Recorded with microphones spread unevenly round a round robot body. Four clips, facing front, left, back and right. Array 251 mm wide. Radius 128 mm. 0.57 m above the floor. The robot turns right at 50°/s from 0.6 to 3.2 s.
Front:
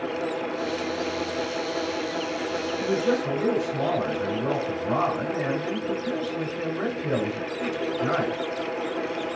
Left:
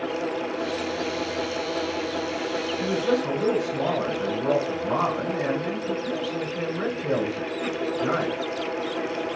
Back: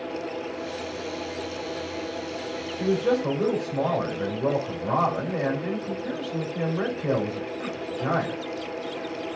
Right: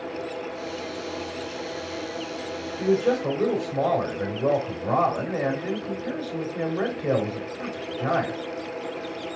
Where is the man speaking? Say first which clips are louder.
Right 3 dB, back 2 dB; 130° right, 4 m; by 8.4 s 110° right, 4 m.